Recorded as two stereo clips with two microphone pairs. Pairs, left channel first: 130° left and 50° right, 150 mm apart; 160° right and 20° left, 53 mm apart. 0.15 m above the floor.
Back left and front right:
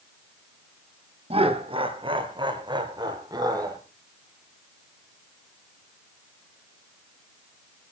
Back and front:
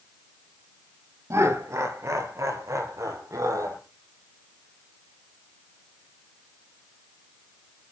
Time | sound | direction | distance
1.3 | laughter | straight ahead | 3 m